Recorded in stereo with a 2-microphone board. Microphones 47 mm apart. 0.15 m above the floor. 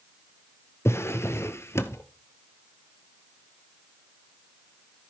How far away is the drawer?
About 1.0 m.